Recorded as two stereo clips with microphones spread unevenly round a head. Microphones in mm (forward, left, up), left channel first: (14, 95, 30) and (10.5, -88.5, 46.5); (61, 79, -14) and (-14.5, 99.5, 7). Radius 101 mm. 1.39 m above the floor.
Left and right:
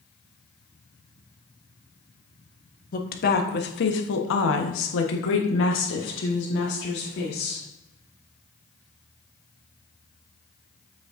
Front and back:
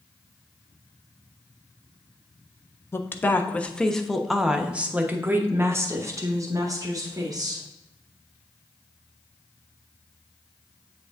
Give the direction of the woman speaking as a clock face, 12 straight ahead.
11 o'clock.